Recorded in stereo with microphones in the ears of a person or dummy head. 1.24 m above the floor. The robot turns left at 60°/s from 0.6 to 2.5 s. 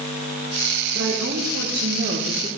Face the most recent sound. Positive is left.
turn(degrees=-160)